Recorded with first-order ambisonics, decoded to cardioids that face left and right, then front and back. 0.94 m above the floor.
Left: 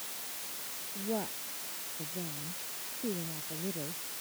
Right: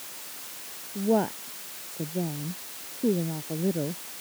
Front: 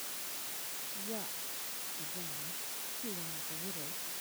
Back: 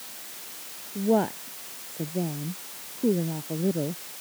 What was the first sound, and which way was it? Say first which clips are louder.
A woman speaking: right 11 dB, back 21 dB; 145° right.